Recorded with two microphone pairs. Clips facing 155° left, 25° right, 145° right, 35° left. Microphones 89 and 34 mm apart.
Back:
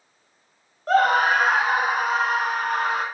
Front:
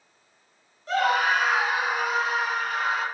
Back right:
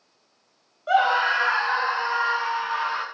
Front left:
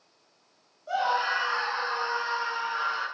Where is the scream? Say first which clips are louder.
Back 4 dB, back right 7 dB; 165° right, 3 m; by 3.0 s 170° right, 5 m.